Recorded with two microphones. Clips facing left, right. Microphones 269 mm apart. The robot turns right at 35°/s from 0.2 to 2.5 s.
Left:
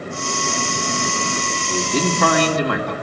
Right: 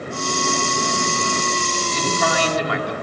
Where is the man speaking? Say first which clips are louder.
Left 5 dB; 85° left, 2 m; by 2.9 s 55° left (ahead or behind), 2 m.